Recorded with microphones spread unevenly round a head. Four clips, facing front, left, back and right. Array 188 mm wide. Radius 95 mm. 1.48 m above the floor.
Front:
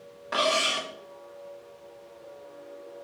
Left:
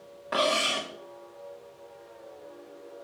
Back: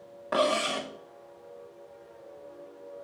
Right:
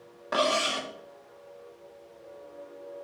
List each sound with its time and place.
0.3 s cutlery clinking: 175° right, 0.6 m